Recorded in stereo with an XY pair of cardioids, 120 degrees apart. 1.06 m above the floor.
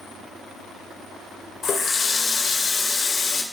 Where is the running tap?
45° left, 0.6 m.